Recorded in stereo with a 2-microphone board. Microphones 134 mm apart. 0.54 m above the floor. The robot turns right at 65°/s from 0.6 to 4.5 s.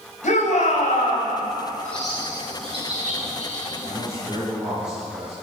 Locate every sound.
0.2 s a shout: 80° left, 3.5 m; by 1.3 s 125° left, 3.5 m
1.8 s a bird: 15° left (ahead or behind), 4 m; by 3.7 s 70° right (ahead or behind), 4 m
3.8 s a man speaking: 55° right, 5 m; by 5.3 s 10° right, 5 m